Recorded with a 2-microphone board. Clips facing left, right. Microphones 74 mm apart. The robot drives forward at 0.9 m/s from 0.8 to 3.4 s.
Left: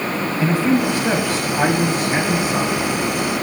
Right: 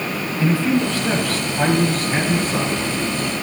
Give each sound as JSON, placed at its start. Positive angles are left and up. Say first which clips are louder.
{"t": 0.4, "sound": "a man speaking", "louder": "left 1 dB", "side_deg": 20, "distance_m": 1.1}